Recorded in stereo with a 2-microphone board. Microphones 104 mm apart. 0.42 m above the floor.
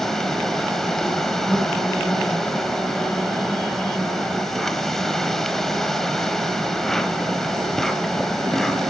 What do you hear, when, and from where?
0.0 s an insect: 5° left (ahead or behind), 1.1 m